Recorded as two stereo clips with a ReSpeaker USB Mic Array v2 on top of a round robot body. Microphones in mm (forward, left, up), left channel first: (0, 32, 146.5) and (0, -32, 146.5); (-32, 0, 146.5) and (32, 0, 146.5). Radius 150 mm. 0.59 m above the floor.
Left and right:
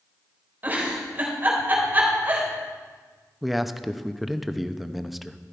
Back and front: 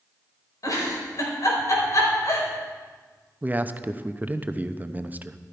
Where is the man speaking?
5° right, 1.0 m.